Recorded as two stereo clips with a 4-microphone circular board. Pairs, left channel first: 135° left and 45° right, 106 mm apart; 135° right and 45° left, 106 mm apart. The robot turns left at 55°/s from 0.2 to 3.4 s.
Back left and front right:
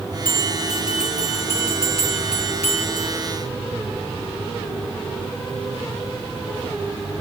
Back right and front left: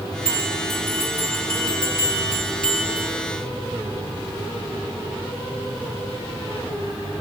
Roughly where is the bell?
Behind right.